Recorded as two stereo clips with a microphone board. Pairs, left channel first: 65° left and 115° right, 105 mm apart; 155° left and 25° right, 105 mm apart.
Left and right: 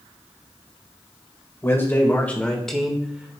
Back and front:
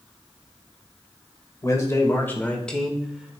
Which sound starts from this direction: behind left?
A man speaking, at 1.6 s.